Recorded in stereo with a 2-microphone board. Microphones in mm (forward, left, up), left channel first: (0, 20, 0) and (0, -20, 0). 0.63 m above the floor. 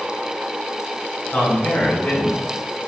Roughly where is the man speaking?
Left.